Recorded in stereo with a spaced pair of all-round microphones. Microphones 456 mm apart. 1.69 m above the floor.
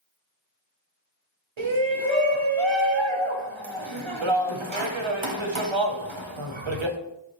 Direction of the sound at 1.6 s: 85° right.